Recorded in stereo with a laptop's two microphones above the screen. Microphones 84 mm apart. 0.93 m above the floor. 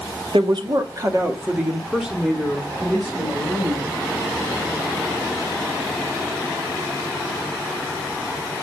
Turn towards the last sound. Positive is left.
turn(degrees=20)  # may be behind; listen again after turning